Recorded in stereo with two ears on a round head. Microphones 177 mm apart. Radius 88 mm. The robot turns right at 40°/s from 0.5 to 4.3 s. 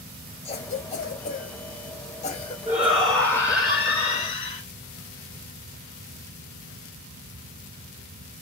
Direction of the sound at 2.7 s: 20° right.